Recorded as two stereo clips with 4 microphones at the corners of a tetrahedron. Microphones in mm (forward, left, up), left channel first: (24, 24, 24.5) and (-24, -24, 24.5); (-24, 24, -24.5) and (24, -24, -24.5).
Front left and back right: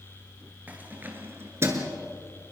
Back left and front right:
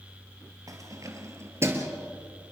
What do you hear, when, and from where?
0.7 s keys jangling: 70° right, 2.5 m; by 1.9 s 100° right, 2 m